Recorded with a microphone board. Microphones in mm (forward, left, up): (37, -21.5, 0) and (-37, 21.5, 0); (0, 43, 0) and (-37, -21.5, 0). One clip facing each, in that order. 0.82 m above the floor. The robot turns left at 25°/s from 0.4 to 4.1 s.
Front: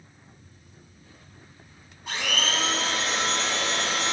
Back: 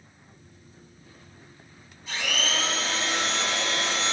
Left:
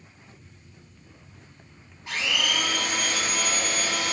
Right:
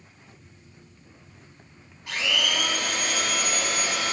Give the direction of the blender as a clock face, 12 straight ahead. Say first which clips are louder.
Front 1 dB, right 1 dB; 12 o'clock.